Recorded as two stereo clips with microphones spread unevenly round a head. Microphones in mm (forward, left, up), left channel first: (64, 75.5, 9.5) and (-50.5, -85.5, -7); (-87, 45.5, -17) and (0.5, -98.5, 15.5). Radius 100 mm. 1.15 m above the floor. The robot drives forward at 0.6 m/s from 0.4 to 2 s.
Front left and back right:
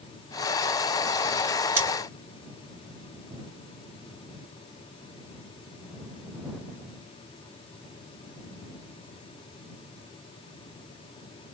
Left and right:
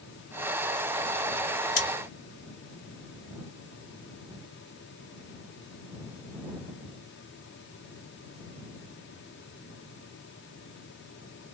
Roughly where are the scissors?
Behind left.